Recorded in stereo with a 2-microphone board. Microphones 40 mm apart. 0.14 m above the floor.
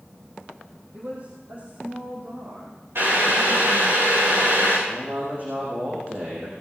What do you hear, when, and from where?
0.9 s a woman speaking: 60° right (ahead or behind), 4.5 m; by 4.0 s 70° right (ahead or behind), 7 m
3.0 s boiling: 65° right (ahead or behind), 8.5 m
4.9 s a man speaking: 45° right (ahead or behind), 7.5 m